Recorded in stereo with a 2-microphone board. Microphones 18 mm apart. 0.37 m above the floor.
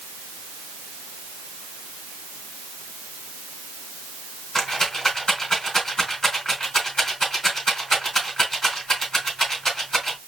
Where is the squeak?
I don't hear a squeak.